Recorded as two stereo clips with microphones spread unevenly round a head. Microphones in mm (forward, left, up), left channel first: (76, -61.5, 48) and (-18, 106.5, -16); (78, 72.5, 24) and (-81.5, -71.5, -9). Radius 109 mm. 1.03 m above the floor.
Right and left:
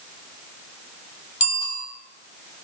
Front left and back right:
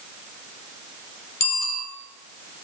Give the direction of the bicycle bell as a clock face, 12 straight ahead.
12 o'clock.